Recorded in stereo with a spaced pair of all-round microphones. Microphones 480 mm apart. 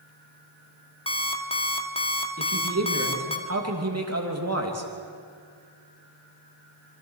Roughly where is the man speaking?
Right.